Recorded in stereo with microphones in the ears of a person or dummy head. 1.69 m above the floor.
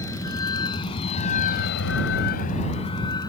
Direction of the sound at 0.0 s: 15° left (ahead or behind).